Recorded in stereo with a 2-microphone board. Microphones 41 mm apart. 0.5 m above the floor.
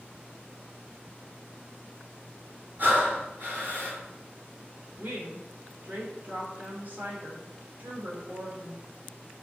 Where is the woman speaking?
45° right (ahead or behind), 1.1 m.